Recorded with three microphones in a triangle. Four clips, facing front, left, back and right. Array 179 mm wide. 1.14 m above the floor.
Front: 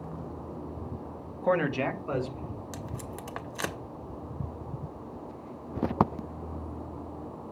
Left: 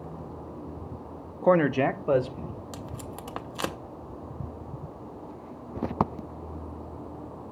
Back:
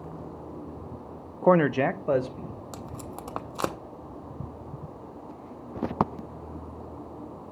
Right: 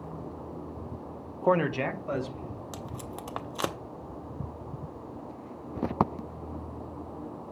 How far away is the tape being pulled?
About 0.6 m.